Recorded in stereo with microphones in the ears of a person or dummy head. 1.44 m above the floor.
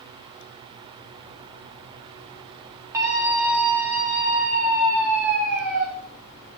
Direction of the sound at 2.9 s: 15° right (ahead or behind).